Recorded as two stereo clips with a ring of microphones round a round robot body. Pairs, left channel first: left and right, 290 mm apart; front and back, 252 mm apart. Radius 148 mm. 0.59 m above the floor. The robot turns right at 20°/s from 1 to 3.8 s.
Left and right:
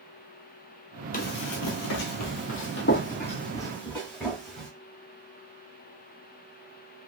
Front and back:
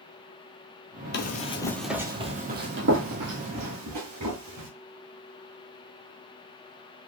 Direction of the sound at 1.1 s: 35° left.